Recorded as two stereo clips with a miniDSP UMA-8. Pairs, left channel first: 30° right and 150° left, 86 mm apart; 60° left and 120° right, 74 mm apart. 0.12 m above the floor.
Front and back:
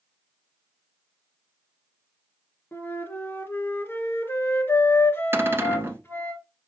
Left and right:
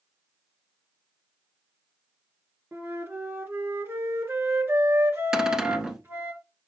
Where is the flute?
80° right, 2.0 m.